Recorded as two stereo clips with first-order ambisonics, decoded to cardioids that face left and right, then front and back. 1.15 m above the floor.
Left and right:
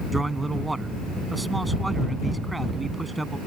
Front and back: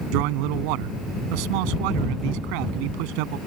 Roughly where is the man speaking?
Behind.